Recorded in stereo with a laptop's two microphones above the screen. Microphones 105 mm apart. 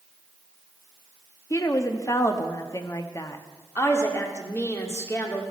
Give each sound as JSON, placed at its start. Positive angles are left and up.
{"t": 1.5, "sound": "a woman speaking", "side_deg": 30, "distance_m": 1.2}
{"t": 3.8, "sound": "a woman speaking", "side_deg": 25, "distance_m": 2.0}